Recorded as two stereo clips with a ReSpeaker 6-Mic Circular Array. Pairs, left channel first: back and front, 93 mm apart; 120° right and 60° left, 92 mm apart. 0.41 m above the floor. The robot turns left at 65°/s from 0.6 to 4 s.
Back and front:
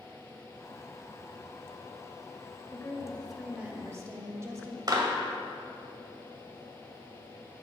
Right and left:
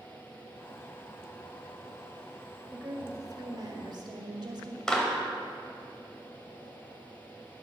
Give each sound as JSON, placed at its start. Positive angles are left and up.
{"t": 2.7, "sound": "a woman speaking", "azimuth_deg": 130, "distance_m": 1.8}
{"t": 4.9, "sound": "a clap", "azimuth_deg": -35, "distance_m": 1.8}